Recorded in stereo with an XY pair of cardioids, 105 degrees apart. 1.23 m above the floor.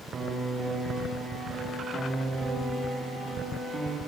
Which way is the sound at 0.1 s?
45° right.